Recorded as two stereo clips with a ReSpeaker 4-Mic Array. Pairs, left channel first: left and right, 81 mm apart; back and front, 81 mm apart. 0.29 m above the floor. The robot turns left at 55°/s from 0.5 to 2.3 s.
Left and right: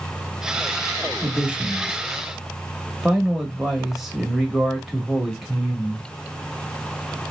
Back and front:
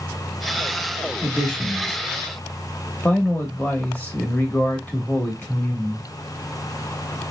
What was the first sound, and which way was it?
A man speaking, 110° right.